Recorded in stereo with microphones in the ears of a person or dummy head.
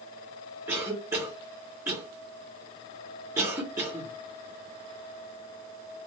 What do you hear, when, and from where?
0.7 s a cough: 10° right (ahead or behind), 0.9 m